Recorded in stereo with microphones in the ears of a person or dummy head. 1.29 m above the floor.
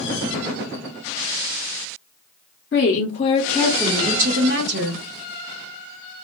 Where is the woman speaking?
50° left (ahead or behind), 0.7 m; by 5.0 s 65° right (ahead or behind), 1.0 m.